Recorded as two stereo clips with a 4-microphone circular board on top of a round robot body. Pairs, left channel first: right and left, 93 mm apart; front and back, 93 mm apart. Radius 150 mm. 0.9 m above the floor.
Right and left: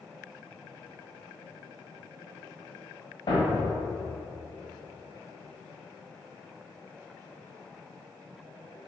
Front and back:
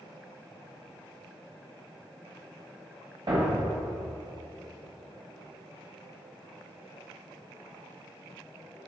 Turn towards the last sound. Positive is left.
turn(degrees=-135)